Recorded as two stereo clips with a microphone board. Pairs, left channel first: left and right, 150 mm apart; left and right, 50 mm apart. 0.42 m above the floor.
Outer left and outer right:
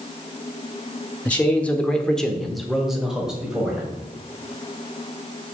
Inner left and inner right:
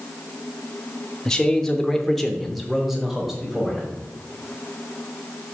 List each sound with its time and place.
1.2 s a man speaking: 10° left (ahead or behind), 1.0 m; by 4.0 s 5° right (ahead or behind), 2 m